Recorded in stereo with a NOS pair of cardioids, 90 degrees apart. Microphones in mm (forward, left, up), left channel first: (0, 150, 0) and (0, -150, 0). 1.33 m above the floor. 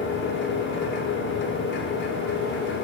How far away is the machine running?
About 4.5 m.